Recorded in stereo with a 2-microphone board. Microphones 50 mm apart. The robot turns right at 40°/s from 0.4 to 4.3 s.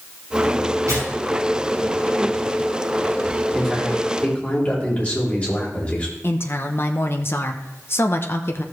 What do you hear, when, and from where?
0.9 s tearing paper: 80° right, 4.5 m; by 2.6 s 25° right (ahead or behind), 4.5 m
3.5 s a man speaking: 5° right, 3 m; by 6.1 s 30° left, 3 m
6.2 s a woman speaking: 55° left (ahead or behind), 0.7 m